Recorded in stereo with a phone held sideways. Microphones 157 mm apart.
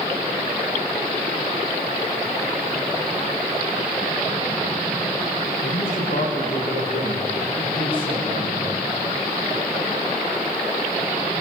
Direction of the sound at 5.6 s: 80° left.